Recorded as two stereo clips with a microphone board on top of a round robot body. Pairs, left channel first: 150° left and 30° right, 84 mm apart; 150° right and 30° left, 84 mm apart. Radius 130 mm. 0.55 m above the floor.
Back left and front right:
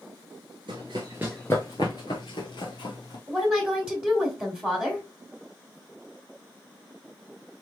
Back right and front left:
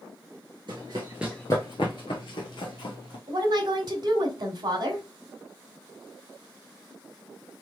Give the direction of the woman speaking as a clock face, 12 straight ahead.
10 o'clock.